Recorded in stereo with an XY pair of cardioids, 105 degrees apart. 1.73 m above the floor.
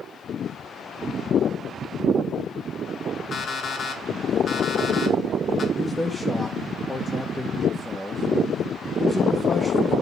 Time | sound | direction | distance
3.3 | an alarm clock | 50° left | 2.5 m
5.8 | a man speaking | 15° left | 1.8 m